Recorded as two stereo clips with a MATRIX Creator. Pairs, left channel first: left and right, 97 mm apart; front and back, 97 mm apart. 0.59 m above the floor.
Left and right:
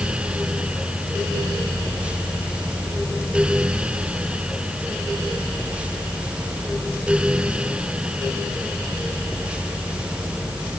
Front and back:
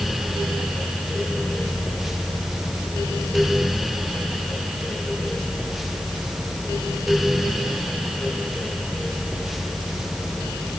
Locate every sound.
Only background noise.